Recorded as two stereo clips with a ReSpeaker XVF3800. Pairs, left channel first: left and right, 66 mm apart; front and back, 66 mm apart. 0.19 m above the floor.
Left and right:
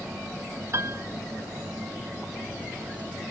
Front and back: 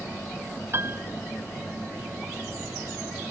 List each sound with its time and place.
0.7 s a piano: 135° right